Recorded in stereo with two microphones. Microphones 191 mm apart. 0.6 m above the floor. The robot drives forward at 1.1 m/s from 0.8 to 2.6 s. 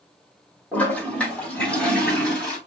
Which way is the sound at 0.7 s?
5° left (ahead or behind).